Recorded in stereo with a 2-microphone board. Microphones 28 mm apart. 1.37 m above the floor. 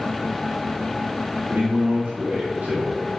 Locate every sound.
1.5 s a man speaking: 60° right (ahead or behind), 3 m